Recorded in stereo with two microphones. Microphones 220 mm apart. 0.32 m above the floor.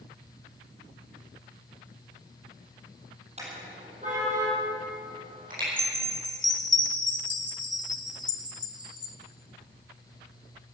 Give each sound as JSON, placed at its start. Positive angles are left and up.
{"t": 3.4, "sound": "a car horn", "side_deg": -30, "distance_m": 5.5}
{"t": 5.8, "sound": "a chime", "side_deg": 20, "distance_m": 1.2}